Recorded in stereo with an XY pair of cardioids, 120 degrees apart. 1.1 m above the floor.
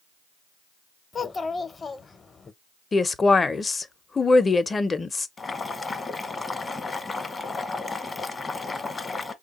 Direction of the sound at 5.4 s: 25° left.